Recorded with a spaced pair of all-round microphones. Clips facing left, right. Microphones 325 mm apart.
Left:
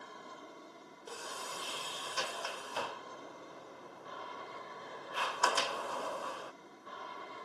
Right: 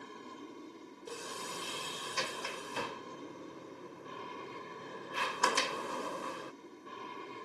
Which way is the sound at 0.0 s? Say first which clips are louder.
Right 4 dB; 35° right (ahead or behind).